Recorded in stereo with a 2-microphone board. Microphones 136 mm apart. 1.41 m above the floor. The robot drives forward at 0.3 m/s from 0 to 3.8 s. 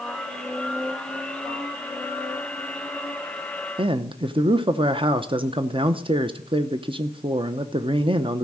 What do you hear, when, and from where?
3.8 s a man speaking: 40° right (ahead or behind), 0.7 m